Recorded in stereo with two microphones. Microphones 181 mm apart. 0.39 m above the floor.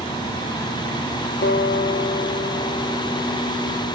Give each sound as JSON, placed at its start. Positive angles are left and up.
{"t": 1.4, "sound": "a guitar", "side_deg": 80, "distance_m": 3.5}